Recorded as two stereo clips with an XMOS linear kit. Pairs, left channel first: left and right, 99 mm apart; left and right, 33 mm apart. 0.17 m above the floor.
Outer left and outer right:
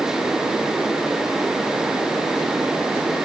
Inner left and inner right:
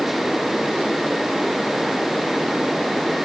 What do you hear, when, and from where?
Only background noise.